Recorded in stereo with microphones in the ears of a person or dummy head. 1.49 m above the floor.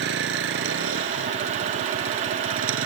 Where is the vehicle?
70° right (ahead or behind); by 2.9 s 80° right.